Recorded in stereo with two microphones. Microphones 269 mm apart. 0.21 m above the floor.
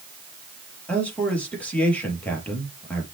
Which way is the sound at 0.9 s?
5° left (ahead or behind).